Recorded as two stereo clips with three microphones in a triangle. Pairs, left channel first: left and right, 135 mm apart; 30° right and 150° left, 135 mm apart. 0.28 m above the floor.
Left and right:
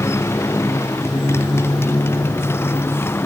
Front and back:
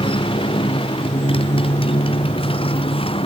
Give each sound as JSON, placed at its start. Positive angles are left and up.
{"t": 0.0, "sound": "a motorcycle", "azimuth_deg": 20}